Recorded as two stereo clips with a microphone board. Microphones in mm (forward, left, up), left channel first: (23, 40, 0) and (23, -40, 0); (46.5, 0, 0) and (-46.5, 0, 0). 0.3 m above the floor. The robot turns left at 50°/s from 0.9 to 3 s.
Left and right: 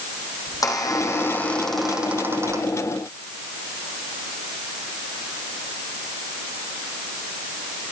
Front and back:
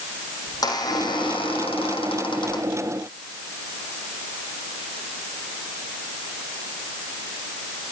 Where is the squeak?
45° left, 3.5 m; by 2.8 s 45° right, 3.5 m.